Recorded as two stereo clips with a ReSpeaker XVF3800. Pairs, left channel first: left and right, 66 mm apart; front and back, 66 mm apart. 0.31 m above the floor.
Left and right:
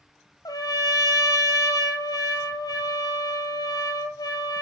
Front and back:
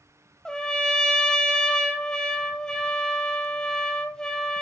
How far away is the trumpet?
About 1.5 m.